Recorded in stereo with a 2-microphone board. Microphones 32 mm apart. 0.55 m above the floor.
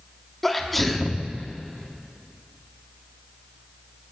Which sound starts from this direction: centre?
A sneeze, at 0.4 s.